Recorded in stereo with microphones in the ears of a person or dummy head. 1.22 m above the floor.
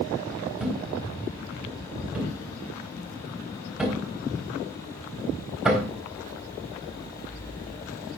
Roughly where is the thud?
Centre.